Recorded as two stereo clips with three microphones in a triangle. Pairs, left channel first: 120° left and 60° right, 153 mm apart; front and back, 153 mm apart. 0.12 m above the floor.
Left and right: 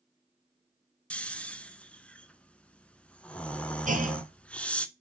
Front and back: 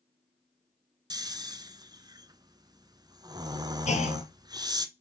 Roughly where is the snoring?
Behind.